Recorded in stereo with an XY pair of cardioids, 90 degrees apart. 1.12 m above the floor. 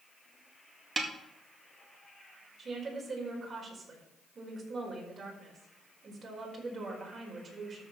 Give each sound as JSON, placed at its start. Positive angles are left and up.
{"t": 1.0, "sound": "a snare drum", "azimuth_deg": -30, "distance_m": 2.0}
{"t": 2.6, "sound": "a woman speaking", "azimuth_deg": -50, "distance_m": 5.0}